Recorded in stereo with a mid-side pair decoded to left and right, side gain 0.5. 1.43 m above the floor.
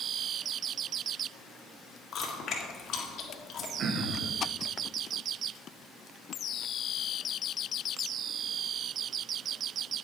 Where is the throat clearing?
55° right, 1.5 m.